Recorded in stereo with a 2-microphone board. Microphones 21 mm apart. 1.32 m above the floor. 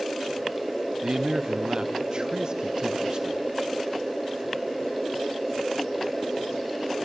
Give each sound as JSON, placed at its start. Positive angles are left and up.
{"t": 1.0, "sound": "a man speaking", "side_deg": -45, "distance_m": 0.7}